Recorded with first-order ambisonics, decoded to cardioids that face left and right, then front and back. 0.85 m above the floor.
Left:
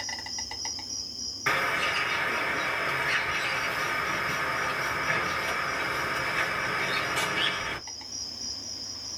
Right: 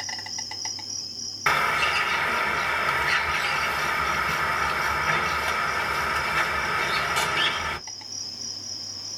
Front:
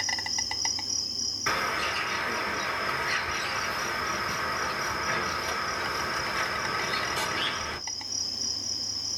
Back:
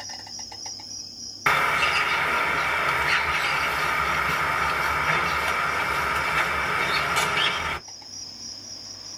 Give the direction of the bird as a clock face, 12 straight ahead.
5 o'clock.